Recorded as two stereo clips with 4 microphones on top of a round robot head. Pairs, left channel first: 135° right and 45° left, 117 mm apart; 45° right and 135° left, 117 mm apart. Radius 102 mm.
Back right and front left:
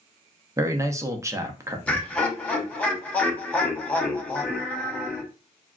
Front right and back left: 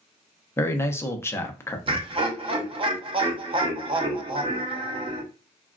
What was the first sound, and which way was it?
A man speaking, 5° left.